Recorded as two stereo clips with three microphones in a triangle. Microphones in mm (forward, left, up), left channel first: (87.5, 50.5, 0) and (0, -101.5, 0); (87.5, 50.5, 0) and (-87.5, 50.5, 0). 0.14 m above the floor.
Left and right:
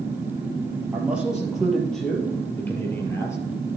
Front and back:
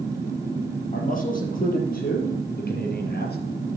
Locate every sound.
0.9 s a man speaking: 40° right, 3.5 m; by 3.4 s 15° right, 3.5 m